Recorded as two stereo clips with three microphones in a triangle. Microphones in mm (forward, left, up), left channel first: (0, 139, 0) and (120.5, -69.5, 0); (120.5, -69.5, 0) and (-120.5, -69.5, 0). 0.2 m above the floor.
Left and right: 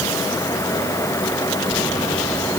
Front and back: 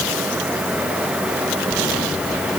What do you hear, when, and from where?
Only background noise.